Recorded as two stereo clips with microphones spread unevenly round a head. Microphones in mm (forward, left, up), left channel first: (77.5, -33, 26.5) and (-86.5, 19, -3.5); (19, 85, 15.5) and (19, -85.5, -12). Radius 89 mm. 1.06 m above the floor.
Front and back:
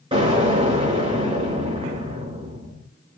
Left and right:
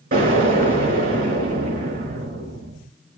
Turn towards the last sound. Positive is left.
turn(degrees=-135)